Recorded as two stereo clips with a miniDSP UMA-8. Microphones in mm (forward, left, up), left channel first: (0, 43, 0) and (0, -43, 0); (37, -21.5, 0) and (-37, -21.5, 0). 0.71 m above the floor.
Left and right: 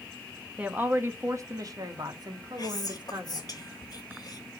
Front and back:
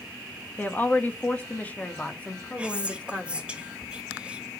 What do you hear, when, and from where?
0.6 s a woman speaking: 35° right, 1.0 m; by 3.5 s 75° right, 2.5 m
2.6 s whispering: 110° left, 1.5 m